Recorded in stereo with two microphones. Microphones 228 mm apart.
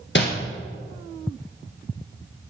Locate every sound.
0.1 s crumpling: 50° left (ahead or behind), 1.2 m